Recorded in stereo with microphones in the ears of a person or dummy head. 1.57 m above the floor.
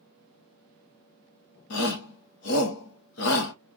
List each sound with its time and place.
1.7 s a shout: 70° left (ahead or behind), 1.0 m